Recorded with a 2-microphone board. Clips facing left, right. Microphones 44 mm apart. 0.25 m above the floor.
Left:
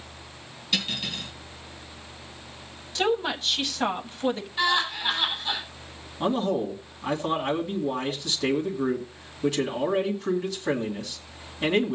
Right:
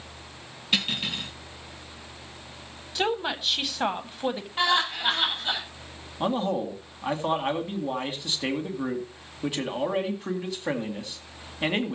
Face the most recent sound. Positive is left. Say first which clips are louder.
# left 1 dB
turn(degrees=-15)  # may be behind; listen again after turning